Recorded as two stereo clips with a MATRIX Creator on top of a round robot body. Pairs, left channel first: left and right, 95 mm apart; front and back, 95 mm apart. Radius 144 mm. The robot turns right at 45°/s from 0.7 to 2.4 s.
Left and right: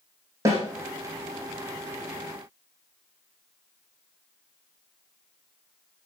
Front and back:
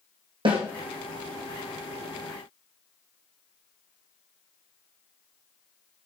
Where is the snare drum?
145° right, 4.5 m.